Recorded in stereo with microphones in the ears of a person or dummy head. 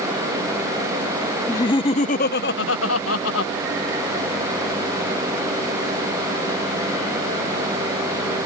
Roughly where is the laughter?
Centre.